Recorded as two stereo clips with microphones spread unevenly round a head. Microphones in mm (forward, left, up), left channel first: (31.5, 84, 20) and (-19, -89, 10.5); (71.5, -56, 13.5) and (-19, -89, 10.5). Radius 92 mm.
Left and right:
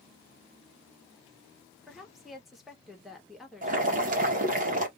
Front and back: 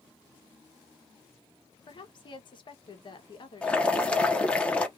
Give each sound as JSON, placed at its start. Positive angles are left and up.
{"t": 1.9, "sound": "a woman speaking", "azimuth_deg": -15, "distance_m": 1.1}
{"t": 3.6, "sound": "boiling", "azimuth_deg": -60, "distance_m": 1.0}